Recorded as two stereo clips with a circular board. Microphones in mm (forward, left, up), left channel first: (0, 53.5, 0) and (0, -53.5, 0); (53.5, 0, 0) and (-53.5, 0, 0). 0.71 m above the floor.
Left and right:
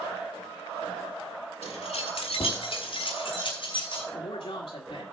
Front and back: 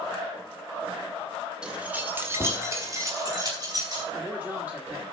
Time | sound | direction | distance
1.6 | keys jangling | 100° left | 1.5 m
4.1 | a man speaking | 110° left | 1.7 m